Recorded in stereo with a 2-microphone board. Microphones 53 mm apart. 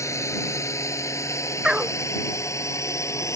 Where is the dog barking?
15° right (ahead or behind).